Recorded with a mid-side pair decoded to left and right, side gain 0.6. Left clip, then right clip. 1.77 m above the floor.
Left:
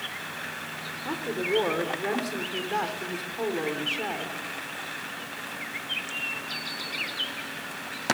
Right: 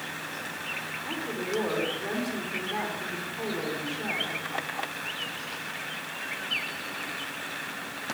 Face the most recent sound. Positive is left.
turn(degrees=30)